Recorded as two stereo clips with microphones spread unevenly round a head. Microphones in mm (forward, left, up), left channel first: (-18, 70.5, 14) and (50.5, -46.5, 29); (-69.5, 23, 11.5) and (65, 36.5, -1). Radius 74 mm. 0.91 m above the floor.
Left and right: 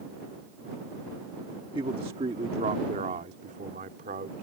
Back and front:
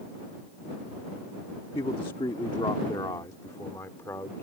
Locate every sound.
1.8 s a man speaking: 115° right; by 4.4 s 100° right